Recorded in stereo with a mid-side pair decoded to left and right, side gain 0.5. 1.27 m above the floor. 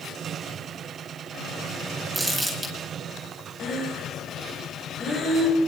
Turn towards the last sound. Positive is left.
turn(degrees=40)